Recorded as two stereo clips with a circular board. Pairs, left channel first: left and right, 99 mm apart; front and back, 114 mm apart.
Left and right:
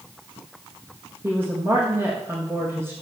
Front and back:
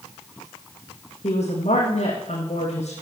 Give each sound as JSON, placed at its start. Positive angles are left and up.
{"t": 1.2, "sound": "a woman speaking", "azimuth_deg": -25, "distance_m": 6.5}